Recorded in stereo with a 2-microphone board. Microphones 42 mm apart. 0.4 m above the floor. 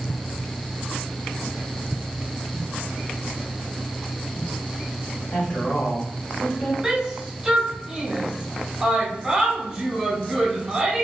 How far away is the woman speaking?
About 1.5 m.